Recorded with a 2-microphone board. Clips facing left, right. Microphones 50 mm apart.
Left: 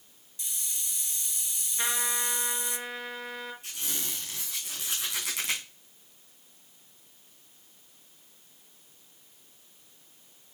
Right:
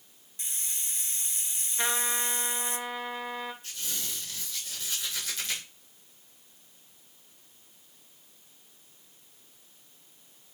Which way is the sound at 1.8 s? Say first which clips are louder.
Right 1 dB; 5° right (ahead or behind).